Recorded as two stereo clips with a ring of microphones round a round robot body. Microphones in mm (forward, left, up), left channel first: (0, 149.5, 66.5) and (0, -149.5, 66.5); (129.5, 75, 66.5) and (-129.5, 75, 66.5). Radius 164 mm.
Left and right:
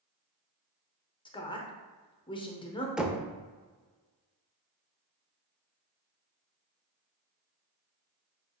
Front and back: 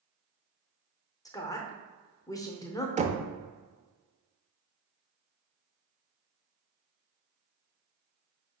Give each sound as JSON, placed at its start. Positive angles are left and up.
{"t": 1.2, "sound": "a woman speaking", "azimuth_deg": 50, "distance_m": 0.8}
{"t": 3.0, "sound": "knocking", "azimuth_deg": -175, "distance_m": 0.6}